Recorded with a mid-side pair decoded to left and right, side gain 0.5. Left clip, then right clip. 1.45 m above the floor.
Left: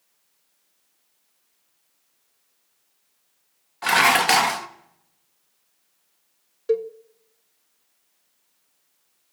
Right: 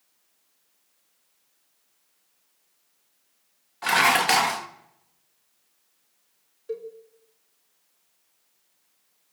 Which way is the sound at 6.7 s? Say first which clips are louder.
Left 11 dB; 65° left.